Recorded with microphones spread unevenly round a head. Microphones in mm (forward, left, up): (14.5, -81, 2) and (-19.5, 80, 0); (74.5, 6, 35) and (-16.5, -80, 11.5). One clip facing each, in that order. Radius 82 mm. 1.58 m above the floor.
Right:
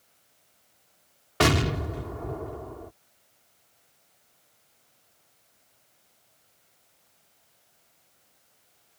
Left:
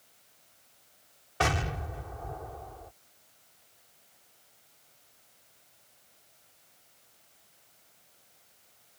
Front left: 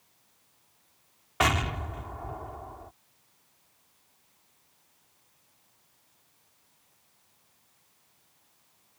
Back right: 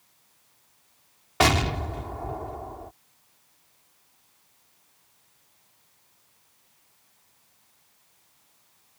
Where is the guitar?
I don't hear a guitar.